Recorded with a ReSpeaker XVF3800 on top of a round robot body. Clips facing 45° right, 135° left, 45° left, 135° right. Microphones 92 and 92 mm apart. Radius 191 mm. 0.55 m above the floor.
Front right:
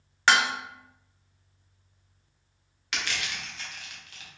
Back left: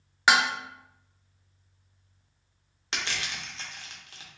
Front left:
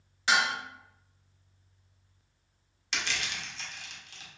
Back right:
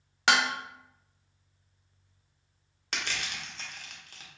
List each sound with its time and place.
0.3 s dishes clattering: 145° right, 0.5 m
2.9 s crushing: 170° right, 1.1 m